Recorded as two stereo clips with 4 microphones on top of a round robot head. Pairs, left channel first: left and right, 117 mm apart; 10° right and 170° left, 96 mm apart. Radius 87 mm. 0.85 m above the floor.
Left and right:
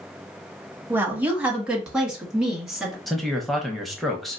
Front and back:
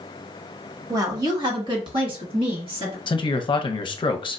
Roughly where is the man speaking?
Ahead.